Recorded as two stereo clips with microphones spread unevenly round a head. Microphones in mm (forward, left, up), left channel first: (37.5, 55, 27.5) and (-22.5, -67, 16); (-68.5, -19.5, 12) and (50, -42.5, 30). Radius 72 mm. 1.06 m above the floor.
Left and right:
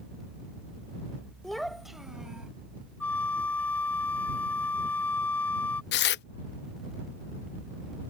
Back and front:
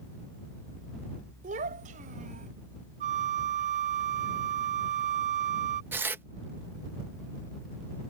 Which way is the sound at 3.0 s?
10° right.